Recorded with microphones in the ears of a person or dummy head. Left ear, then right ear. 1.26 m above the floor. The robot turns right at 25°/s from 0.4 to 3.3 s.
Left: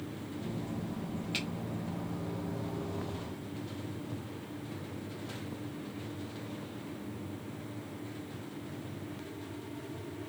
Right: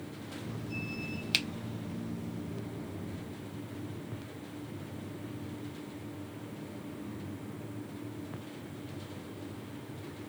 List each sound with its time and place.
1.3 s a finger snap: 45° right (ahead or behind), 0.5 m